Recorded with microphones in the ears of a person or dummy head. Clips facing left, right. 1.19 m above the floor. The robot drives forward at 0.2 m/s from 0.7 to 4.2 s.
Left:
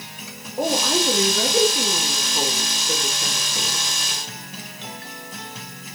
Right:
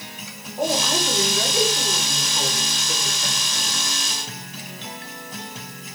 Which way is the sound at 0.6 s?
60° left (ahead or behind).